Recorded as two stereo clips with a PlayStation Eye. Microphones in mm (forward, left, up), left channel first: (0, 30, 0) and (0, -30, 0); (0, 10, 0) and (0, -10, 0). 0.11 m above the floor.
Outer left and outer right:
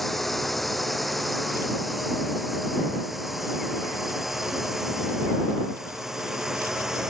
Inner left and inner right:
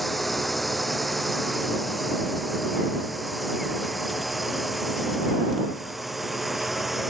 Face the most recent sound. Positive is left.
turn(degrees=-10)  # may be behind; listen again after turning